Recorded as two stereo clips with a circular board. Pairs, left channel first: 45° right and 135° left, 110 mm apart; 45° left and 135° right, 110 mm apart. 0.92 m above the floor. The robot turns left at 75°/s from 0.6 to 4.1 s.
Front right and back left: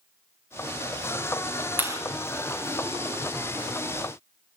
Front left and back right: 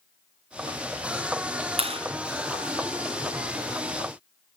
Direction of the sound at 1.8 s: 155° right.